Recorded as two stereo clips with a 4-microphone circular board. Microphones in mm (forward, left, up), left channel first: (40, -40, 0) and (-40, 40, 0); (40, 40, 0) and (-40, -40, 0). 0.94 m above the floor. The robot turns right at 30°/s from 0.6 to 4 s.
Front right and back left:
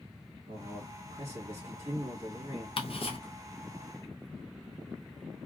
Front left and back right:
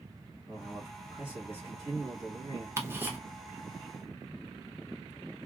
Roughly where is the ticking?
Right.